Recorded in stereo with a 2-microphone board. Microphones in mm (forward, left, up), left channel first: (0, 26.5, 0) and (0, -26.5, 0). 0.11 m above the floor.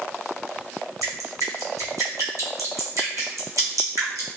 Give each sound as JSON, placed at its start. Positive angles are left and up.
{"t": 1.0, "sound": "dripping", "side_deg": -80, "distance_m": 1.3}